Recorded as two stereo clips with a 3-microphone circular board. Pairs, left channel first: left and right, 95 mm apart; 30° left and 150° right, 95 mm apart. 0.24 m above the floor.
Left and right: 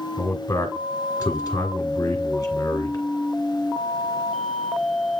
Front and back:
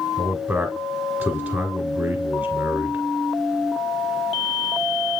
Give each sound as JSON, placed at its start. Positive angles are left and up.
{"t": 0.2, "sound": "a man speaking", "azimuth_deg": 145, "distance_m": 2.5}